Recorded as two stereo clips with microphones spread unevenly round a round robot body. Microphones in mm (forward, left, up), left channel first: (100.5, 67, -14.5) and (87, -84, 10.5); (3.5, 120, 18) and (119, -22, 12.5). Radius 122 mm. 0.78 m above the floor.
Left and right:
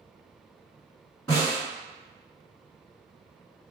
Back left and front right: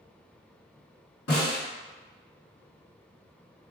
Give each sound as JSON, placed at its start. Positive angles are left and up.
{"t": 1.3, "sound": "a snare drum", "azimuth_deg": 165, "distance_m": 1.9}